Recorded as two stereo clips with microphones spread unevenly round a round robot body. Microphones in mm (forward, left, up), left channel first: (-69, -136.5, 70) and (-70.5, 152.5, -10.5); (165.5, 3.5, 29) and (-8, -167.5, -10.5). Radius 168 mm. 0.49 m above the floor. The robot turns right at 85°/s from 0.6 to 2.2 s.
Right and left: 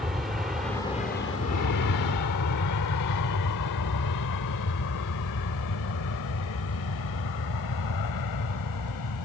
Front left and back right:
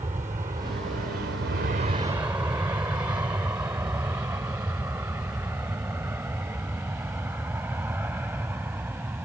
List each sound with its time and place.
0.0 s an aircraft: 160° left; by 9.3 s 55° right